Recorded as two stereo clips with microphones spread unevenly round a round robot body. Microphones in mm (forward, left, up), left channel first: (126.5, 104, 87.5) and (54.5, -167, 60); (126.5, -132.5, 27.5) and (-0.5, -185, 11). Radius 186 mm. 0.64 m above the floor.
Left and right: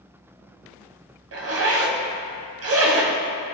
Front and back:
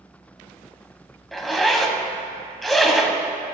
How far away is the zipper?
About 1.3 m.